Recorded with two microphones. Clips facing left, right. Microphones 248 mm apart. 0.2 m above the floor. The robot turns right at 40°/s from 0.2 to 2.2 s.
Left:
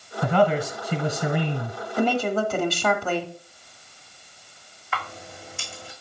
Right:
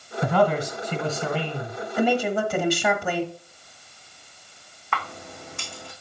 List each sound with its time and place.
0.2 s a man speaking: centre (ahead or behind), 1.4 m; by 1.8 s 25° left (ahead or behind), 1.4 m
2.0 s a woman speaking: 10° right (ahead or behind), 1.3 m; by 3.3 s 15° right (ahead or behind), 1.3 m
4.9 s a camera shutter: 60° right (ahead or behind), 2.5 m